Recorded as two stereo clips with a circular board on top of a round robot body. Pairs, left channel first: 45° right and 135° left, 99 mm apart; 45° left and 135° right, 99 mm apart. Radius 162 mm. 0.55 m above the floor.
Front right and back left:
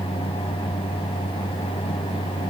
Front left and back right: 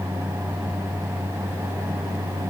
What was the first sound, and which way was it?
Only background noise.